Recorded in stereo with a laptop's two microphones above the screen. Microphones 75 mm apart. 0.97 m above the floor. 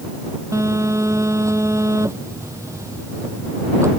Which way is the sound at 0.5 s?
40° right (ahead or behind).